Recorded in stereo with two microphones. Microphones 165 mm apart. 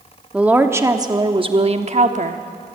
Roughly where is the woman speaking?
Centre.